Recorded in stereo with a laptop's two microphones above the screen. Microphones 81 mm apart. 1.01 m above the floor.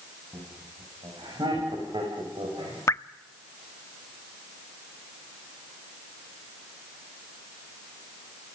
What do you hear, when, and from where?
0.3 s laughter: 75° right (ahead or behind), 7 m; by 2.8 s 85° right, 4.5 m
2.9 s dripping: 35° left (ahead or behind), 0.5 m